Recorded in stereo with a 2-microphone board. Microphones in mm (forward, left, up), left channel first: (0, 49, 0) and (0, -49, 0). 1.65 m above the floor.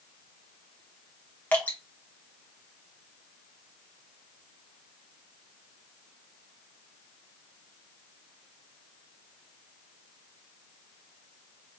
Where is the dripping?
20° left (ahead or behind), 1.3 m.